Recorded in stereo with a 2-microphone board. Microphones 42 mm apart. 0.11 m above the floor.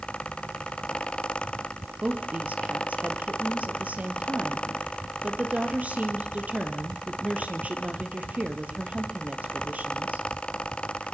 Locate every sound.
2.0 s a woman speaking: 35° right (ahead or behind), 3 m